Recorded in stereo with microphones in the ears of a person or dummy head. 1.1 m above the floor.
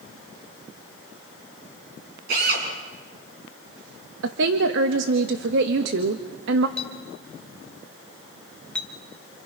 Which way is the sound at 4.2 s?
65° right (ahead or behind).